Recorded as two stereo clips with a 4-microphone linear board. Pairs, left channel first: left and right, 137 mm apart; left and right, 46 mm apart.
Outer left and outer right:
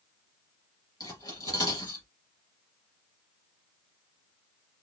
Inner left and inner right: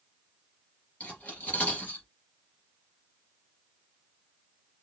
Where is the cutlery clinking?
25° left (ahead or behind), 3 m.